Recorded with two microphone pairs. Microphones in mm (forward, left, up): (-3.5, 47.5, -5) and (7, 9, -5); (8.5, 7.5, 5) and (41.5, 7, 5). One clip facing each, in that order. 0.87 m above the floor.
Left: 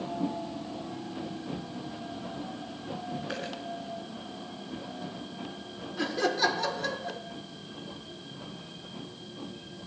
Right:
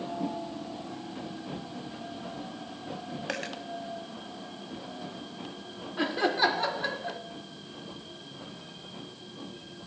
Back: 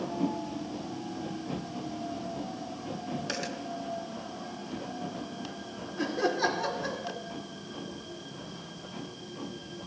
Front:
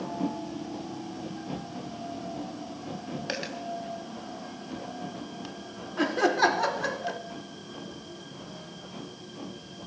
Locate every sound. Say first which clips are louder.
3.3 s a dropped coin: right 5 dB, front 4 dB; 65° right, 2.5 m
6.0 s laughter: right 1 dB, front 5 dB; 10° right, 1.8 m